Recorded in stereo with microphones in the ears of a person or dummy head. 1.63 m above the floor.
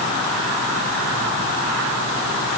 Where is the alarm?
No alarm in this recording.